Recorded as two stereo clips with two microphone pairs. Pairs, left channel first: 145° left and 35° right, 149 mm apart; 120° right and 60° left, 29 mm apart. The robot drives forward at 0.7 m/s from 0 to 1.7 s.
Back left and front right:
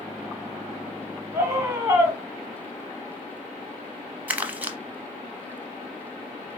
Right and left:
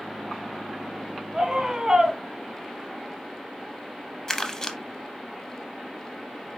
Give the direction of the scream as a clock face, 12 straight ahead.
12 o'clock.